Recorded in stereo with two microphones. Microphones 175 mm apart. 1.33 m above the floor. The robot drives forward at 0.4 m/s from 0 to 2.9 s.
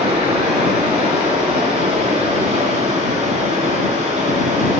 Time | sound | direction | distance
0.0 | running water | 30° right (ahead or behind) | 8.5 m